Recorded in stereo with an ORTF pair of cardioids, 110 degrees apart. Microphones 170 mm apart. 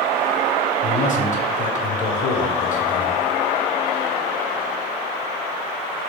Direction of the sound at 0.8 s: 50° left.